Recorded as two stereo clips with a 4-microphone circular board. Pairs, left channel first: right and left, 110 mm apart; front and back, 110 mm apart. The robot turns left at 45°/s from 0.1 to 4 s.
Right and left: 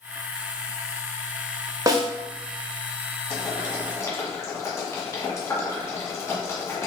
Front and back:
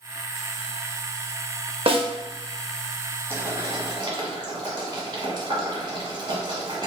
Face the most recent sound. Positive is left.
turn(degrees=-140)